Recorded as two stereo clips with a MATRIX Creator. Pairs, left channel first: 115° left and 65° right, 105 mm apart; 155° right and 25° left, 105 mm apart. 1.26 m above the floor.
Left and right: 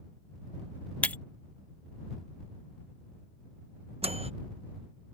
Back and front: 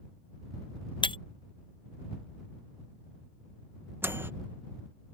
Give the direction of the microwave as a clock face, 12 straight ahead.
2 o'clock.